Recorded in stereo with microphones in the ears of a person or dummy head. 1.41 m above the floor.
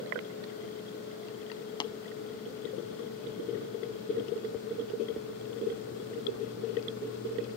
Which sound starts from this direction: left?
Tapping, at 1.8 s.